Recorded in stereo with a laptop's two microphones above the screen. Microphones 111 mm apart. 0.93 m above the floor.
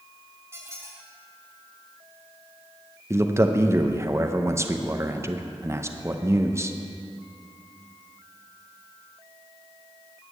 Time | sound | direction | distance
0.5 | a squeak | 25° right (ahead or behind) | 1.8 m
3.1 | a man speaking | 25° right (ahead or behind) | 0.6 m